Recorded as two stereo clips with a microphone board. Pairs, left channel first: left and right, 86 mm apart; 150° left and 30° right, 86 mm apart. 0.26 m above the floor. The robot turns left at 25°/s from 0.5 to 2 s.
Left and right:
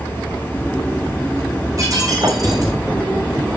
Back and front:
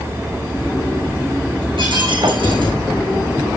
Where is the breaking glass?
40° right, 7 m; by 2.7 s 45° right, 7 m.